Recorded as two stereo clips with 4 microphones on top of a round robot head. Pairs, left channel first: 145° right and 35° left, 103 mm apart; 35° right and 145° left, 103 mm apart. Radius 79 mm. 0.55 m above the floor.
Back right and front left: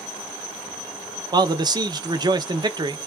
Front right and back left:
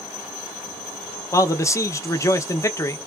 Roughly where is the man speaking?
Ahead.